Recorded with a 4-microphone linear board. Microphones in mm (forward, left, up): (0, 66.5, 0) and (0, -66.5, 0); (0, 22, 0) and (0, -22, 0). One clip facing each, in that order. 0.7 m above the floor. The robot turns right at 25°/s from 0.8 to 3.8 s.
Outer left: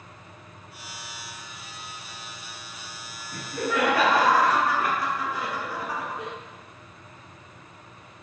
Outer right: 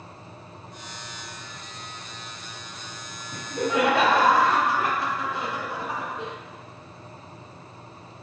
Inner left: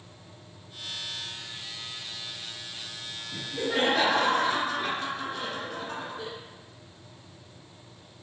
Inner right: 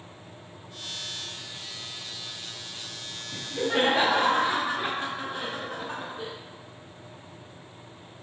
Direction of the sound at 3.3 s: 20° right (ahead or behind).